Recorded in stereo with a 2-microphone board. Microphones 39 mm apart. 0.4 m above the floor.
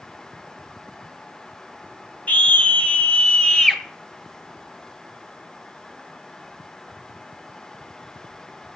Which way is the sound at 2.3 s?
40° left (ahead or behind).